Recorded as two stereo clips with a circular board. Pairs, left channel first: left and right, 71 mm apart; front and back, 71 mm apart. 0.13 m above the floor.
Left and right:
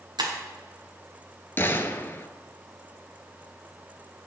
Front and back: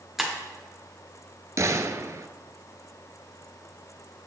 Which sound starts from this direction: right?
Breaking glass, at 0.2 s.